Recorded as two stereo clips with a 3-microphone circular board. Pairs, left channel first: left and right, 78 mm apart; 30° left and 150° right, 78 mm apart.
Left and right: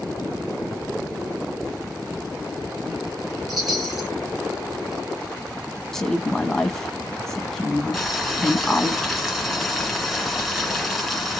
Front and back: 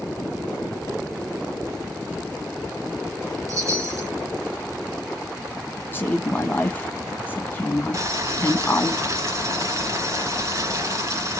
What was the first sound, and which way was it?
A chime, 175° right.